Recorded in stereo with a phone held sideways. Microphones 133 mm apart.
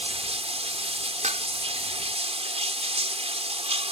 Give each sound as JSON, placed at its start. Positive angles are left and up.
{"t": 0.0, "sound": "running water", "side_deg": -50}
{"t": 1.2, "sound": "dishes clattering", "side_deg": -60}